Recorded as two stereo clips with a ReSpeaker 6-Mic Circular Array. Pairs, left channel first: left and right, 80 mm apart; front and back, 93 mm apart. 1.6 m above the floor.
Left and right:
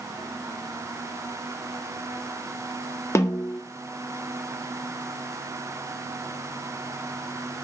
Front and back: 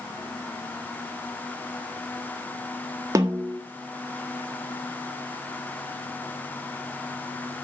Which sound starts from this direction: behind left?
A snare drum, at 3.1 s.